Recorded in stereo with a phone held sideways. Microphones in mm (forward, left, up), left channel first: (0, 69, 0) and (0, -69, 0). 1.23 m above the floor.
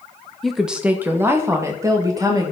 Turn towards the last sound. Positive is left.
turn(degrees=-30)  # may be behind; listen again after turning